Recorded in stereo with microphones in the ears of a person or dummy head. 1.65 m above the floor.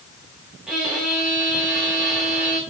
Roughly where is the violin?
Centre.